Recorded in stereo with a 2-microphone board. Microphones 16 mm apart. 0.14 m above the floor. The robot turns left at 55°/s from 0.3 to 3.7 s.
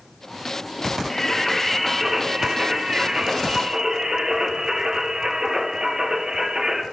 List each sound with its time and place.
1.1 s singing: 40° left, 2.5 m; by 6.8 s 105° right, 2.5 m